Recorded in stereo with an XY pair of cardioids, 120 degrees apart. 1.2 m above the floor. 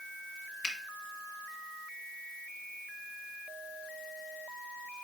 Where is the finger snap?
40° left, 1.7 m.